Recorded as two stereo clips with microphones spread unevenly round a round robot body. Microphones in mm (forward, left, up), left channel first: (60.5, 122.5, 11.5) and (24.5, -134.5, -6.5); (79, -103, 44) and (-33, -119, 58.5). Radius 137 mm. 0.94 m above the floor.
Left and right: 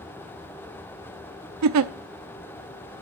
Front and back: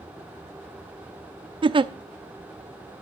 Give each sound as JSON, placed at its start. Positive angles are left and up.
{"t": 1.6, "sound": "a giggle", "azimuth_deg": -130, "distance_m": 0.6}